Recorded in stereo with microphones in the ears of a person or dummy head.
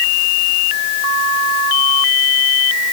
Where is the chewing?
No chewing in this recording.